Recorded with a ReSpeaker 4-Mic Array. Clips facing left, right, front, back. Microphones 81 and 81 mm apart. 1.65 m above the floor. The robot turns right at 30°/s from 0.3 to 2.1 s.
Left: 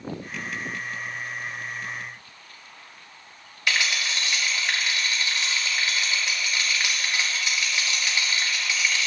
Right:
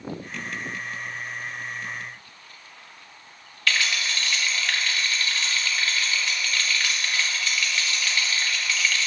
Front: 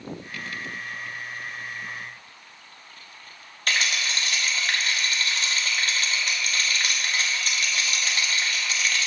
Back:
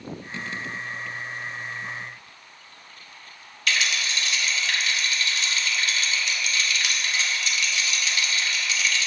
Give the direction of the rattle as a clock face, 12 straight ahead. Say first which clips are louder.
Even, even; 11 o'clock.